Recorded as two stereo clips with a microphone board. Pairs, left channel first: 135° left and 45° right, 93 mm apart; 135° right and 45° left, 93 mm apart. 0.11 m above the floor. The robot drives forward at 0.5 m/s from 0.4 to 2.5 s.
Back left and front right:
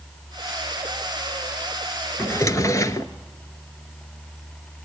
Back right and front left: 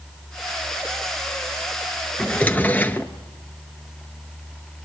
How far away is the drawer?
About 0.7 m.